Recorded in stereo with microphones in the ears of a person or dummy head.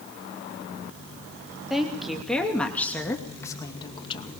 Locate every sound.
1.7 s a woman speaking: 5° right (ahead or behind), 2.5 m; by 4.3 s 30° left (ahead or behind), 2.0 m